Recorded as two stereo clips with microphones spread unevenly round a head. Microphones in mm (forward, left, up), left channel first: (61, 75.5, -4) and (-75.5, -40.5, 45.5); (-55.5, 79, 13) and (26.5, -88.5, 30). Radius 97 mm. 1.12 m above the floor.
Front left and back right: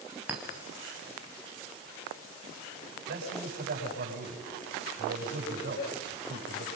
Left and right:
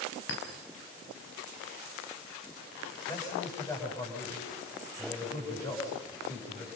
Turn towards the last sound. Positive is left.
turn(degrees=-175)